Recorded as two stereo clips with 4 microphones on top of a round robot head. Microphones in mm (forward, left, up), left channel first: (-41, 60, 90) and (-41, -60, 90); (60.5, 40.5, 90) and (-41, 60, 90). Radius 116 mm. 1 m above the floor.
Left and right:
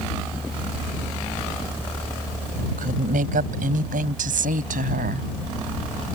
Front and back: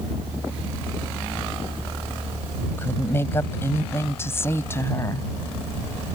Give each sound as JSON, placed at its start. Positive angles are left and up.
{"t": 2.8, "sound": "a woman speaking", "azimuth_deg": -85}